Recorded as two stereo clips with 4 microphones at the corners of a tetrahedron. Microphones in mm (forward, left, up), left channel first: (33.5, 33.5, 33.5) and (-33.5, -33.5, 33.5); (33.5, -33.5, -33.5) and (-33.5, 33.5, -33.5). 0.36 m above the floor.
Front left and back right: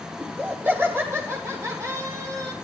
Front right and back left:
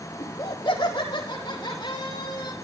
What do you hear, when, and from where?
0.2 s laughter: 60° right, 3 m; by 2.5 s 90° right, 5 m